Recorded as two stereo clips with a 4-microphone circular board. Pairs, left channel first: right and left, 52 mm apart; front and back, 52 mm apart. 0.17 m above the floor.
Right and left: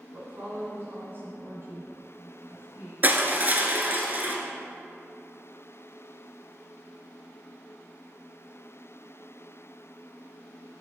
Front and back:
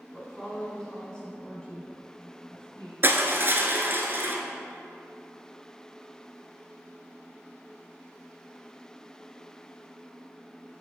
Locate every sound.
0.1 s a woman speaking: 70° left, 1.7 m; by 2.9 s 65° left, 3 m
3.0 s crushing: 140° left, 0.6 m